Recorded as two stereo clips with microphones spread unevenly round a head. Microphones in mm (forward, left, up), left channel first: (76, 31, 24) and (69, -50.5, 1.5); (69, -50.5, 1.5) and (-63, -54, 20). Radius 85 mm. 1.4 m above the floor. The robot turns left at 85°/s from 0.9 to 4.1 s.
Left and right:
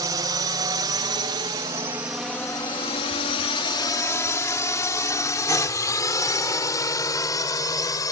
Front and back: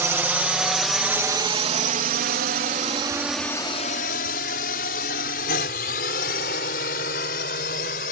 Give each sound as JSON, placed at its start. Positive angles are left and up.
{"t": 0.0, "sound": "a drone", "azimuth_deg": -105}